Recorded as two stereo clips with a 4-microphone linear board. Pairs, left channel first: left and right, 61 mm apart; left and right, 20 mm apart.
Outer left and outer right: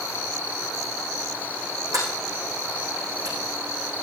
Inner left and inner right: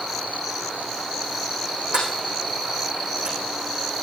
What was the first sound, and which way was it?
A sliding door, 70° right (ahead or behind).